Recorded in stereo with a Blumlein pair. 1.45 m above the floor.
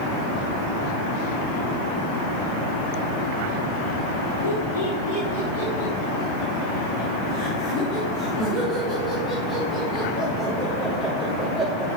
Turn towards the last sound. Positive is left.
turn(degrees=-5)